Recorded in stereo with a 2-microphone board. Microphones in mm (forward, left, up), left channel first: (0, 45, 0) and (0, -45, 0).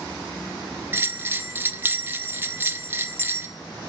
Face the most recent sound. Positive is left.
turn(degrees=-25)  # may be behind; listen again after turning